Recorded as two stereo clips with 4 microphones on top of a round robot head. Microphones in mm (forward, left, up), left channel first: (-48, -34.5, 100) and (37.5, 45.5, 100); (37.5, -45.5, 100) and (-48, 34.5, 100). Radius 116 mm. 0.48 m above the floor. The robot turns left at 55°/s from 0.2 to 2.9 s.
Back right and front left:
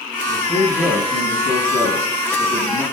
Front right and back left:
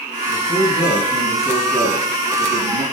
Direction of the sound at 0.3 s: 70° right.